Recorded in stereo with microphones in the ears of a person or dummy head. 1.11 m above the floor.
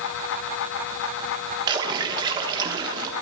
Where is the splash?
25° right (ahead or behind), 1.3 m.